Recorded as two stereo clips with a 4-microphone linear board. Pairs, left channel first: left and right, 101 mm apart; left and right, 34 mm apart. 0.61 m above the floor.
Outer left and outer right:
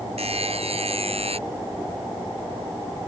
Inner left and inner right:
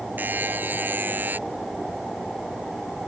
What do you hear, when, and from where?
0.2 s a buzzer: 75° right (ahead or behind)